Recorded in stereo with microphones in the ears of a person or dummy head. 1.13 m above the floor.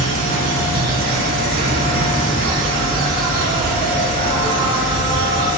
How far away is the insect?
About 9 m.